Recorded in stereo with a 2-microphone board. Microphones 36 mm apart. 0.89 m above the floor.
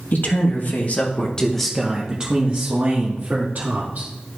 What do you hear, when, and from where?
0.1 s a man speaking: 60° left (ahead or behind), 1.8 m; by 4.1 s 55° right (ahead or behind), 2.5 m